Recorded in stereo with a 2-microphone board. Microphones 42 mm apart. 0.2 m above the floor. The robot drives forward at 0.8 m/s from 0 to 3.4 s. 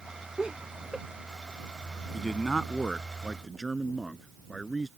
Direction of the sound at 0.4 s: 25° right (ahead or behind).